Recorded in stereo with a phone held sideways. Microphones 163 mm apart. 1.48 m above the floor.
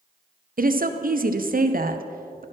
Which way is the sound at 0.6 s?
60° right (ahead or behind).